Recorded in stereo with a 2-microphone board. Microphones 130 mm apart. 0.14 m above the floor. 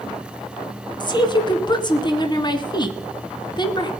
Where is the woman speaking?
35° left (ahead or behind), 1.3 m.